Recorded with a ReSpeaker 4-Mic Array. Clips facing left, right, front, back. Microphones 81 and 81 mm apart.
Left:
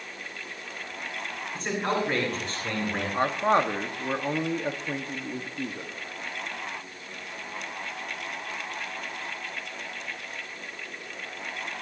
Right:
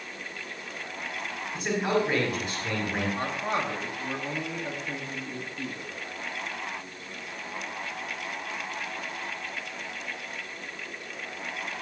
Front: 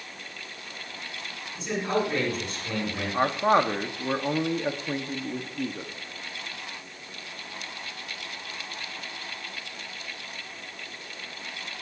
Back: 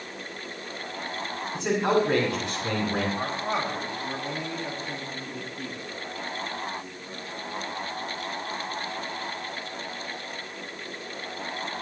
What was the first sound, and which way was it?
A man speaking, 175° right.